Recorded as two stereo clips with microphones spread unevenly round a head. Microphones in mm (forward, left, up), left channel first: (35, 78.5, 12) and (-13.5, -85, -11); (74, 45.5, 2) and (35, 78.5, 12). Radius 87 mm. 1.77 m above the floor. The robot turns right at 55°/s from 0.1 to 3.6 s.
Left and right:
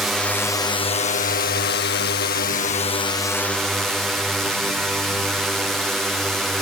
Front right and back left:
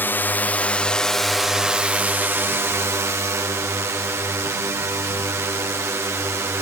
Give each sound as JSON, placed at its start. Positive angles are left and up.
{"t": 0.0, "sound": "a drone", "azimuth_deg": -25}